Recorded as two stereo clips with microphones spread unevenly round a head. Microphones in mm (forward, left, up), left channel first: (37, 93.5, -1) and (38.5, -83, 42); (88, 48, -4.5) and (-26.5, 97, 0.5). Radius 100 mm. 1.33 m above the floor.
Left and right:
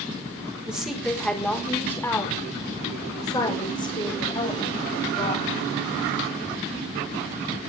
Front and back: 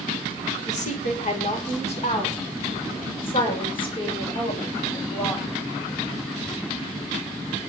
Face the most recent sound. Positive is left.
turn(degrees=30)